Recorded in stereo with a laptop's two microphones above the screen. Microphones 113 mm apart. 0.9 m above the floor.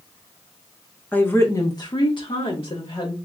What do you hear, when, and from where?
1.1 s a woman speaking: 15° left (ahead or behind), 0.7 m; by 3.1 s 55° left (ahead or behind), 1.2 m